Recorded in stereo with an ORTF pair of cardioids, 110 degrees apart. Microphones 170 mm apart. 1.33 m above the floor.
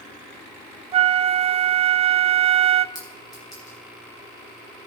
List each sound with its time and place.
0.9 s a flute: 35° right, 0.6 m
3.0 s a clink: 25° left, 8 m